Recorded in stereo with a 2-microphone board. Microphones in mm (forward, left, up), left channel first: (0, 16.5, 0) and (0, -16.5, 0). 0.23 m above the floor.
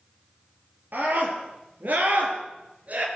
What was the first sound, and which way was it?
A scream, 65° right (ahead or behind).